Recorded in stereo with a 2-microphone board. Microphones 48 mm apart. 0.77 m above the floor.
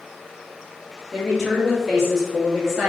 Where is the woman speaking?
10° left (ahead or behind), 1.0 m; by 2.9 s centre (ahead or behind), 1.4 m.